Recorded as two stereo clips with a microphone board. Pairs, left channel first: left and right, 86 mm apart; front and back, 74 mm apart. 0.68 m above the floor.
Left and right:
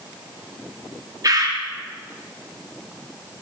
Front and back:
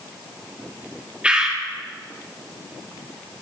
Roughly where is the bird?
Right.